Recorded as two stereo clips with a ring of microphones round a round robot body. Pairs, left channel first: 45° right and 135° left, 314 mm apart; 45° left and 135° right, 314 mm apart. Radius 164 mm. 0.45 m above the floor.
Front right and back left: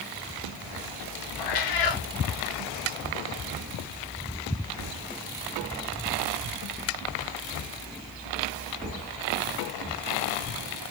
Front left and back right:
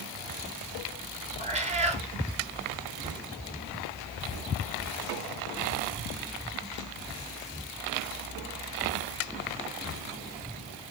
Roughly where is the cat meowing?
Ahead right.